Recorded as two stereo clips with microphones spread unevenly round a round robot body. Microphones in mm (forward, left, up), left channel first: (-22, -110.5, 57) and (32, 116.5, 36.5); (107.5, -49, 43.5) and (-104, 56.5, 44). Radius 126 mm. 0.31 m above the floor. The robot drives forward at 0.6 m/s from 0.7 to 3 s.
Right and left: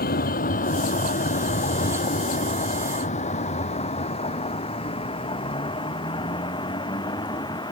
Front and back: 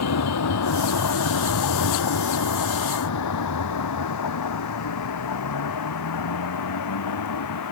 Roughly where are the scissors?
No scissors in this recording.